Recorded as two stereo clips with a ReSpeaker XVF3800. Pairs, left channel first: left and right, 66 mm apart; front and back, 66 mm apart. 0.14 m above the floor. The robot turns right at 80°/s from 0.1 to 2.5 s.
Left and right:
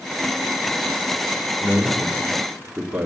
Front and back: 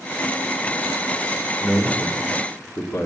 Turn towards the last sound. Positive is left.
turn(degrees=-15)